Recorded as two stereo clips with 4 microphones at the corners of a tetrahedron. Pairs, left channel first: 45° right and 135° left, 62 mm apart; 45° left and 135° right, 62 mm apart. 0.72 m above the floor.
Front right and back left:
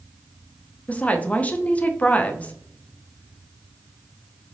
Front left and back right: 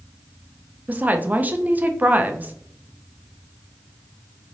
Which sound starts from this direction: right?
A woman speaking, at 0.9 s.